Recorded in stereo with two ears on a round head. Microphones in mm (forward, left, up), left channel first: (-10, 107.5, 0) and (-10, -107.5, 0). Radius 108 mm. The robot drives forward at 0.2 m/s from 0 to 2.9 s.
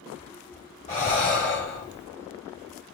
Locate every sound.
0.9 s breathing: 30° left (ahead or behind), 2.0 m